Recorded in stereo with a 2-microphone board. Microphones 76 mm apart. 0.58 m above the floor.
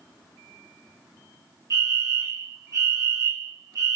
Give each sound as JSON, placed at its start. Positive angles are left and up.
{"t": 1.7, "sound": "a fire alarm", "side_deg": -40, "distance_m": 2.0}